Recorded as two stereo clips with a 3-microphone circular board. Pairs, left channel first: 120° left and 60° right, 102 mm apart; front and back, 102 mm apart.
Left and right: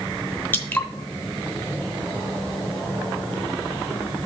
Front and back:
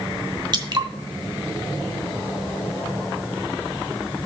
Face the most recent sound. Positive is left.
turn(degrees=180)